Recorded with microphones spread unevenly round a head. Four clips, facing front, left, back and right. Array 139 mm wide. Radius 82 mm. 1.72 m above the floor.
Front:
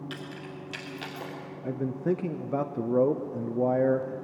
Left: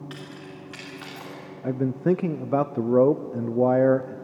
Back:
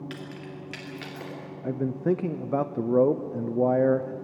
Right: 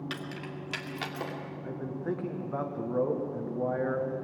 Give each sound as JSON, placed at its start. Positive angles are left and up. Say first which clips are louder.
{"t": 0.1, "sound": "keys jangling", "louder": "right 1 dB, back 1 dB", "azimuth_deg": -105, "distance_m": 1.9}
{"t": 1.6, "sound": "a man speaking", "louder": "left 12 dB, back 3 dB", "azimuth_deg": 60, "distance_m": 0.6}